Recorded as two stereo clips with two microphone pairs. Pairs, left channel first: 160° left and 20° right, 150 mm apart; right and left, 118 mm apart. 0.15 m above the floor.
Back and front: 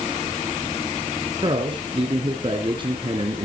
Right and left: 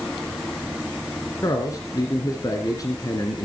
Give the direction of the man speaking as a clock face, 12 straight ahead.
2 o'clock.